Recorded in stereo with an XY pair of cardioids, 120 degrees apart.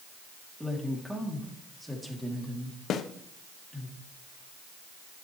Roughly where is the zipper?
I don't hear a zipper.